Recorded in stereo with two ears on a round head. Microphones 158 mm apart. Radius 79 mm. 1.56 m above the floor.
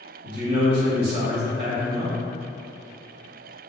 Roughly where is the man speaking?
Right.